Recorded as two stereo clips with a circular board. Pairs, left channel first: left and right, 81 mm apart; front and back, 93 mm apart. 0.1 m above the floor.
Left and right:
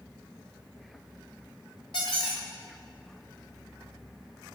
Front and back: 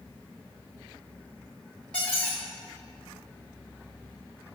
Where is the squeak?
80° left, 3 m.